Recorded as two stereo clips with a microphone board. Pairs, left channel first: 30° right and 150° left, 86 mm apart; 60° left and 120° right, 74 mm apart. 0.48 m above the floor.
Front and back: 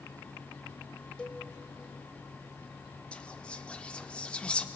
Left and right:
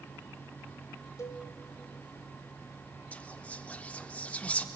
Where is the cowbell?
40° left, 1.8 m.